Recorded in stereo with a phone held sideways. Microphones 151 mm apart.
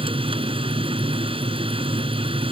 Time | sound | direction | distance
0.0 | a machine running | 40° right (ahead or behind) | ?